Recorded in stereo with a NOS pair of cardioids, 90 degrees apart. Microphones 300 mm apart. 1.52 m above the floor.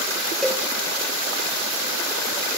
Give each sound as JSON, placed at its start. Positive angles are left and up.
{"t": 0.4, "sound": "a cowbell", "azimuth_deg": 0, "distance_m": 1.3}